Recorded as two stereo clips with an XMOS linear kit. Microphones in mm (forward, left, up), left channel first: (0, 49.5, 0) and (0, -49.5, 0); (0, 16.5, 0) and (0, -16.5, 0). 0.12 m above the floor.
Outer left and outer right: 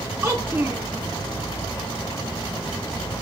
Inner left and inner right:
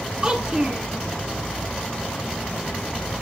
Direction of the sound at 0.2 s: 30° right (ahead or behind).